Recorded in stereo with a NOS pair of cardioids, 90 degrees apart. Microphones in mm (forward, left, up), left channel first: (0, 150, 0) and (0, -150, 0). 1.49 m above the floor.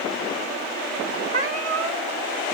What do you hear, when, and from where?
1.3 s a cat meowing: 50° right, 3 m